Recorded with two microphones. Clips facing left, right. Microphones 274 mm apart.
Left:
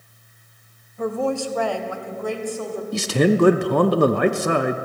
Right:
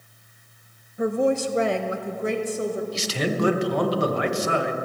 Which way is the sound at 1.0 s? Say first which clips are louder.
Right 2 dB; 15° right (ahead or behind).